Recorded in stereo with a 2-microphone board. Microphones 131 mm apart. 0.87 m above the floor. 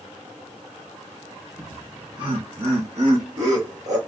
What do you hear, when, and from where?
1.6 s laughter: 20° right (ahead or behind), 0.9 m; by 4.0 s 65° right (ahead or behind), 1.6 m